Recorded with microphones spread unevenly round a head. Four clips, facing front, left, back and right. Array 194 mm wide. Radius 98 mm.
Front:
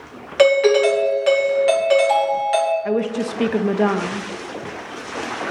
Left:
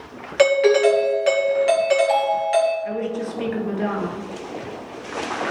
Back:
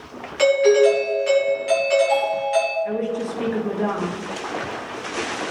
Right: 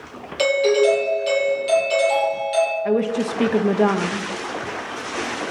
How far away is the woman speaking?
About 1.6 m.